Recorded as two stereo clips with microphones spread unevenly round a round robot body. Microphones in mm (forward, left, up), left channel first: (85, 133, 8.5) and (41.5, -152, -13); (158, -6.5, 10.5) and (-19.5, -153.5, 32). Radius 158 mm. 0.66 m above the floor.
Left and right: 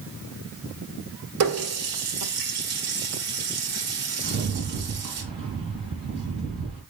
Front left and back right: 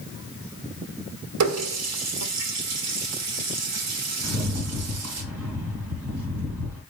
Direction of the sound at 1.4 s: 140° right.